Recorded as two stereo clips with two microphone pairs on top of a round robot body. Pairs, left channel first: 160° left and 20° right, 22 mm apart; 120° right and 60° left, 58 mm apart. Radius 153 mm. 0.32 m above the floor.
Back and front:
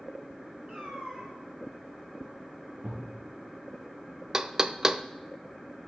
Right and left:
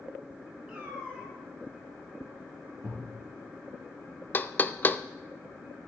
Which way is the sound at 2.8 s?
60° right.